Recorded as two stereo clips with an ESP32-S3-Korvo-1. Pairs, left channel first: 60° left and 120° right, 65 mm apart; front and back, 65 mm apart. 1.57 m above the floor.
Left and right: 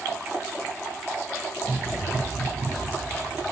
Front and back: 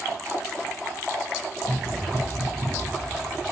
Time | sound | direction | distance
1.6 | running footsteps | 90° right | 4.5 m